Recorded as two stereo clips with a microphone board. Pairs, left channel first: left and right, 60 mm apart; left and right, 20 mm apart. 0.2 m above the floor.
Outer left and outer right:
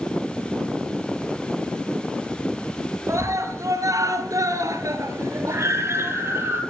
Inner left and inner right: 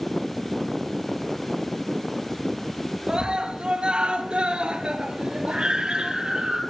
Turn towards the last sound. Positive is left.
turn(degrees=-40)  # may be behind; listen again after turning